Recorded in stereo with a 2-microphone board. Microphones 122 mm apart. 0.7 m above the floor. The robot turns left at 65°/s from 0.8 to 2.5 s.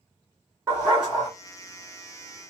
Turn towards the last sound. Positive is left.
turn(degrees=90)